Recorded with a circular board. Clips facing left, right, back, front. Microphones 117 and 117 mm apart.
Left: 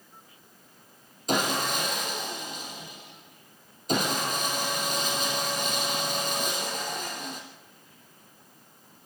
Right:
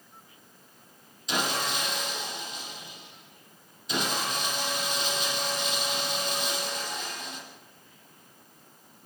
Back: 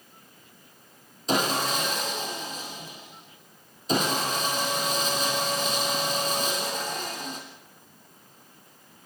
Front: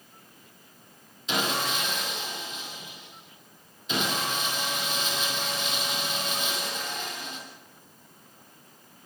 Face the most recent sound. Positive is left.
turn(degrees=130)